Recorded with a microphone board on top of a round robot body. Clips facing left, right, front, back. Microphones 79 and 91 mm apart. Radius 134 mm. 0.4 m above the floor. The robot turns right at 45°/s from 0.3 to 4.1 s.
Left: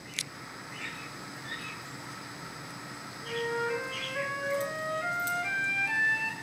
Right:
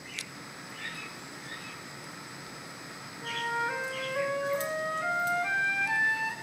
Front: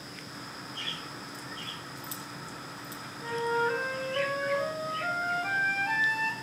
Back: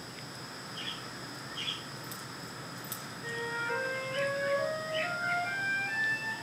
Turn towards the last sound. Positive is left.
turn(degrees=-15)